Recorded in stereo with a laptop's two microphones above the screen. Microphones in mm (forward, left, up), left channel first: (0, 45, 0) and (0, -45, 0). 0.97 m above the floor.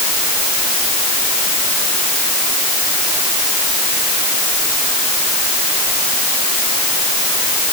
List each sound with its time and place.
Only background noise.